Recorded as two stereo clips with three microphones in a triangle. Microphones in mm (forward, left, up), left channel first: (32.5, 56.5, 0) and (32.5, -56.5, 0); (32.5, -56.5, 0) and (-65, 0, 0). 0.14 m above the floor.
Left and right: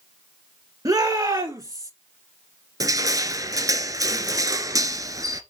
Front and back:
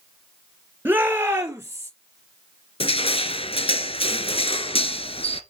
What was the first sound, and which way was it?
A shout, 140° right.